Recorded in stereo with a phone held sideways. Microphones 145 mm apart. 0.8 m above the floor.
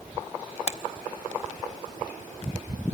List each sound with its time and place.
0.7 s a finger snap: 50° left (ahead or behind), 0.7 m